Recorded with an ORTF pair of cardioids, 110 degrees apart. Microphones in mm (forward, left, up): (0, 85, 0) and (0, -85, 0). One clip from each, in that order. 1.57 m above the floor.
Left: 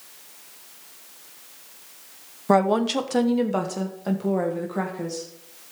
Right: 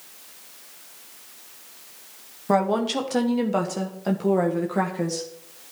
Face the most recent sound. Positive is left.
turn(degrees=-25)